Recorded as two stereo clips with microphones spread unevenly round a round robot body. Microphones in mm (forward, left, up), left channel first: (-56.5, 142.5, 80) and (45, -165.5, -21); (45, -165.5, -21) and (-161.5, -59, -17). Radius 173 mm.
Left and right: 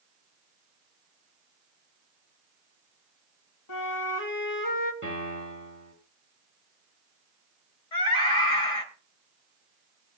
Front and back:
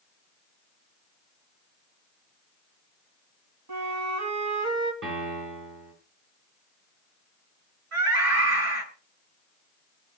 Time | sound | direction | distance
3.7 | a flute | 140° left | 1.7 m
5.0 | a piano | 175° right | 10 m
7.9 | a scream | 135° left | 5.5 m